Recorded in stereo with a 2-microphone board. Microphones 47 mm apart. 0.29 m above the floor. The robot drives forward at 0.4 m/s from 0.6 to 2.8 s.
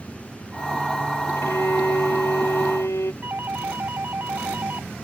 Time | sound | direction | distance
1.4 | a violin | 80° left | ?
3.2 | a doorbell | 50° right (ahead or behind) | ?